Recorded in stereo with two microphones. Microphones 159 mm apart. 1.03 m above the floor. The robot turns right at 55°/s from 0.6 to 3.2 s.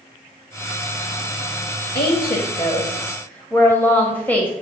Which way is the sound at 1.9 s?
100° left.